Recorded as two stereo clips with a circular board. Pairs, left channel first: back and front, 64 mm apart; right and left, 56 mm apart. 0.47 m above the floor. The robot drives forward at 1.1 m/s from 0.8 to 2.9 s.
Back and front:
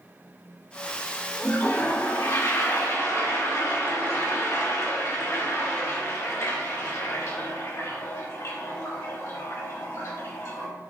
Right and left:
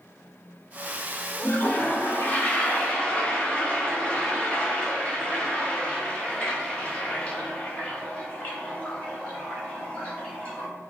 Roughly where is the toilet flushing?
Behind right.